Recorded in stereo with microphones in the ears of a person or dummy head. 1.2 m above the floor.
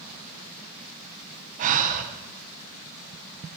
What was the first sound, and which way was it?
Breathing, 45° right (ahead or behind).